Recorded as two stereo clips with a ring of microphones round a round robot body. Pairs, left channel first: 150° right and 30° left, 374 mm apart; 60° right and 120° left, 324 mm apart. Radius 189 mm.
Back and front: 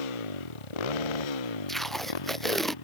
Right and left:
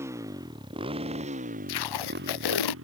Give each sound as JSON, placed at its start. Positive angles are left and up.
{"t": 0.0, "sound": "a motorcycle", "azimuth_deg": -155}
{"t": 1.7, "sound": "tape being pulled", "azimuth_deg": -60}